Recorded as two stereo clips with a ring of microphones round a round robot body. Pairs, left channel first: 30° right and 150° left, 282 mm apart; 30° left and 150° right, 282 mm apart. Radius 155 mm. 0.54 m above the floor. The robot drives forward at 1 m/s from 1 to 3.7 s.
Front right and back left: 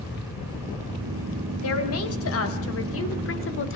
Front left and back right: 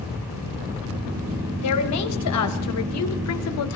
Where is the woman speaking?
5° left, 4.5 m; by 3.8 s 10° left, 2.5 m.